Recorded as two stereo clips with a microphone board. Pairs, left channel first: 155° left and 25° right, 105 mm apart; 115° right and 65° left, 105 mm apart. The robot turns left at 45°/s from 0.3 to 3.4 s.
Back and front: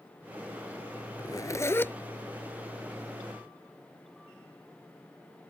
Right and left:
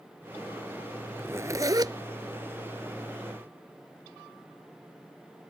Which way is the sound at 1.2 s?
125° left.